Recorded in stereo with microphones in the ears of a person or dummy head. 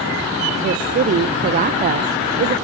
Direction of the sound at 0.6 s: 45° right (ahead or behind).